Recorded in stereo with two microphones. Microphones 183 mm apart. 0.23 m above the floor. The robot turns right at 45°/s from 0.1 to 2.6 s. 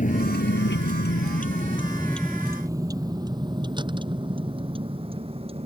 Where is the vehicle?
45° left (ahead or behind); by 5.7 s 30° right (ahead or behind).